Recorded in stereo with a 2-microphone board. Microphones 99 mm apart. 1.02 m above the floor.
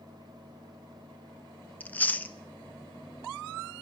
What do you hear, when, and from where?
1.8 s chewing: 15° left (ahead or behind), 0.6 m